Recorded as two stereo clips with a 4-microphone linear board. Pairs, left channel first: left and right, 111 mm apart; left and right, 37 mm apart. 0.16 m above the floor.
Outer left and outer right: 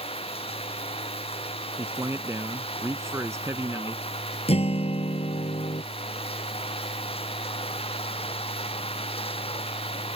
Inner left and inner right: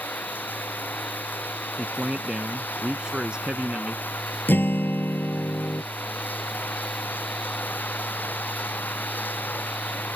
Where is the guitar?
65° left (ahead or behind).